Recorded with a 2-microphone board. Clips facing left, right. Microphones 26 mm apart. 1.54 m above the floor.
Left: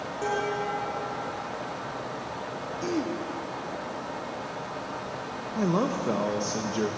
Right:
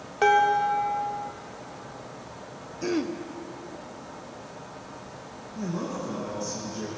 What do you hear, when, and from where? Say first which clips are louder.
0.2 s dishes clattering: right 9 dB; 75° right (ahead or behind), 2.5 m
2.8 s throat clearing: right 2 dB; 25° right (ahead or behind), 1.1 m
5.5 s a man speaking: left 6 dB; 65° left (ahead or behind), 1.4 m